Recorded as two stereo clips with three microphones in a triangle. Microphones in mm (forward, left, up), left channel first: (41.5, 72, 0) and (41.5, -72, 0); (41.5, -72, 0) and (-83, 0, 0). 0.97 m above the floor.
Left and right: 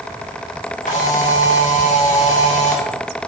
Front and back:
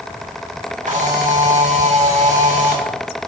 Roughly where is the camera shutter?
Behind left.